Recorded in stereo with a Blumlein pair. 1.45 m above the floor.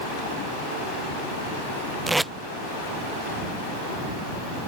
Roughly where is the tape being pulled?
Ahead.